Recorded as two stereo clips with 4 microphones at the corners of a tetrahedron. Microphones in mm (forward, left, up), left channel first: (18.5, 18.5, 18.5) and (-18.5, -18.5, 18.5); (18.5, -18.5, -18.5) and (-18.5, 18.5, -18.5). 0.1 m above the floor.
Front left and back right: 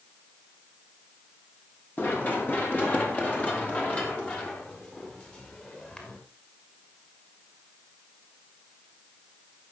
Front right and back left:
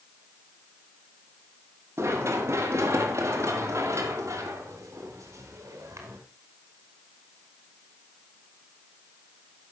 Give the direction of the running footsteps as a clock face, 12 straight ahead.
9 o'clock.